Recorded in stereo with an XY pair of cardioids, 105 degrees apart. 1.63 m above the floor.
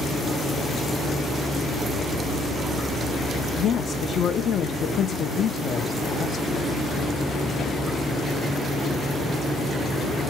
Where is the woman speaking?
55° left, 0.6 m.